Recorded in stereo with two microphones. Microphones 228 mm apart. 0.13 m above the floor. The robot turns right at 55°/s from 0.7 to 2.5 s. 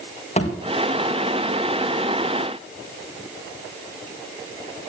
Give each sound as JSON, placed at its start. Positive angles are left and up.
{"t": 0.4, "sound": "a thud", "side_deg": 30, "distance_m": 4.5}